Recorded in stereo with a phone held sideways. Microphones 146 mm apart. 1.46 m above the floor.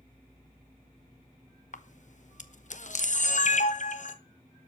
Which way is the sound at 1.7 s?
55° left (ahead or behind).